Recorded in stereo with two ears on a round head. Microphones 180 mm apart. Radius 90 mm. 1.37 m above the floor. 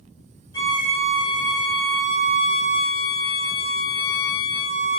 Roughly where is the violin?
Centre.